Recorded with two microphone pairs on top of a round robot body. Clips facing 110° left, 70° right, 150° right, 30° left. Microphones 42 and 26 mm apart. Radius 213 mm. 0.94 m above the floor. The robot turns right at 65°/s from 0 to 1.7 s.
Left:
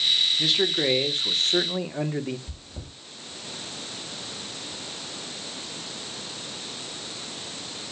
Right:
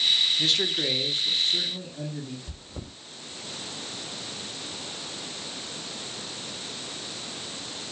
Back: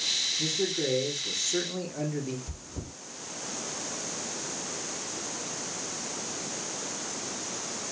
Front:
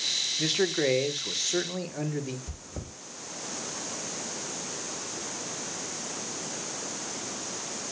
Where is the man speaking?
20° left, 1.5 m; by 2.4 s 105° left, 1.5 m.